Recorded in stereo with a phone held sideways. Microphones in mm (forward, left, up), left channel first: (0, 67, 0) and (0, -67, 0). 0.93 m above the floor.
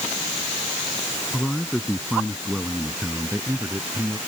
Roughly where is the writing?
I don't hear writing.